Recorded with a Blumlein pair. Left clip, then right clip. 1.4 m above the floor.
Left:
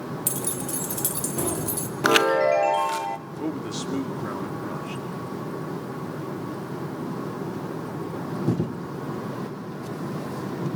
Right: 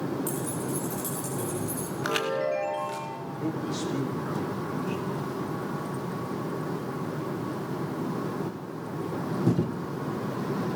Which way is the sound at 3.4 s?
15° left.